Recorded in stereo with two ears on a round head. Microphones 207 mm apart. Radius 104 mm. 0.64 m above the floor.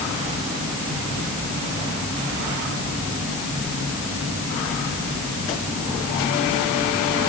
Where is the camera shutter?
No camera shutter in this recording.